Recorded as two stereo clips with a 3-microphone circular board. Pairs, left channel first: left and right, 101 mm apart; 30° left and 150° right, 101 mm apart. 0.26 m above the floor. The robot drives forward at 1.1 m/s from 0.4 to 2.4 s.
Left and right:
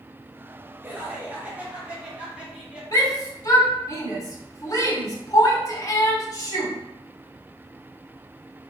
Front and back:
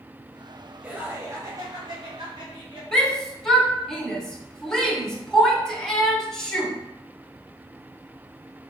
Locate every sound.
0.8 s laughter: 100° right, 1.2 m; by 2.8 s 165° right, 2 m
2.9 s a shout: 110° left, 1.2 m